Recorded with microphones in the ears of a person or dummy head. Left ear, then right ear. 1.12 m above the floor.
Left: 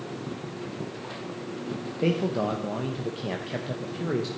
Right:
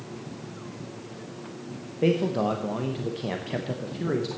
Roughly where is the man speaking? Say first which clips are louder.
Right 2 dB; centre.